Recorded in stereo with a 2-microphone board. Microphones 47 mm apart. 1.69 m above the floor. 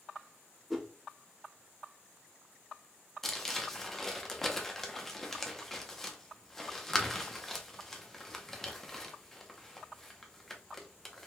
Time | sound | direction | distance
0.7 | a whoosh | centre (ahead or behind) | 0.8 m
3.2 | crumpling | 5° left (ahead or behind) | 0.8 m